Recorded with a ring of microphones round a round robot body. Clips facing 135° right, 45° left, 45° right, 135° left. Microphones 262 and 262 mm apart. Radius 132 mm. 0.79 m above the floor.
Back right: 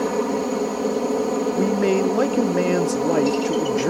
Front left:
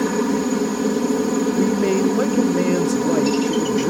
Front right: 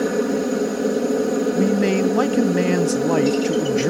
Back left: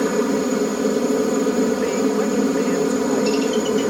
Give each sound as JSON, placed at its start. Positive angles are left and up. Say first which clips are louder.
{"t": 0.0, "sound": "a helicopter", "louder": "front left 3 dB, back left 1 dB", "azimuth_deg": 55}
{"t": 1.5, "sound": "a man speaking", "louder": "back right 1 dB, front right 1 dB", "azimuth_deg": -40}